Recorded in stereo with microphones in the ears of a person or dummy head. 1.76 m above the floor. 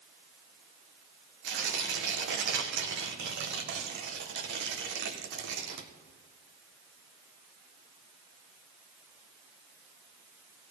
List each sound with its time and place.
1.4 s tearing paper: 65° right (ahead or behind), 1.7 m